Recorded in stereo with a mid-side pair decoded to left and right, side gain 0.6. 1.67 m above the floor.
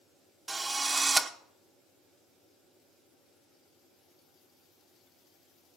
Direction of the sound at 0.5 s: 20° right.